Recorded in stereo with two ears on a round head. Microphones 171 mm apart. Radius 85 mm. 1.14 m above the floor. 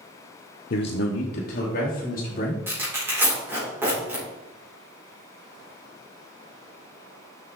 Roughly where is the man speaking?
Left.